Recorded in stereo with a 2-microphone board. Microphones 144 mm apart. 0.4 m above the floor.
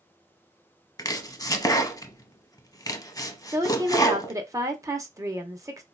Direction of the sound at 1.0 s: 25° left (ahead or behind).